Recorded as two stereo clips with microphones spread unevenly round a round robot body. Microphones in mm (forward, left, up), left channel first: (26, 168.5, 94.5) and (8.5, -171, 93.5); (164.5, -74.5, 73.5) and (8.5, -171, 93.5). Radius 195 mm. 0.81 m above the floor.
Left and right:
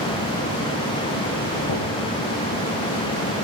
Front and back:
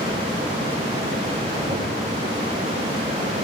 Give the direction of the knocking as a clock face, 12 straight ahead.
8 o'clock.